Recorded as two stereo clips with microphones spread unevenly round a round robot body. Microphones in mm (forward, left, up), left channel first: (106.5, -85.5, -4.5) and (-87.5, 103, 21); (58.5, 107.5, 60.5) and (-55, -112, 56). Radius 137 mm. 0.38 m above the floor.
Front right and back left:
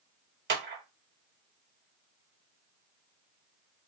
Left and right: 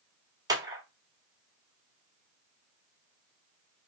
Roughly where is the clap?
Behind.